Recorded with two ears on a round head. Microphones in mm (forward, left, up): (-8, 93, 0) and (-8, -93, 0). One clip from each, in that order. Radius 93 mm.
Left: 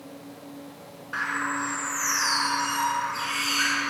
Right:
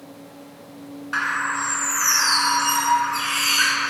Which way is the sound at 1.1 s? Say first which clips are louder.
Right 5 dB; 40° right (ahead or behind).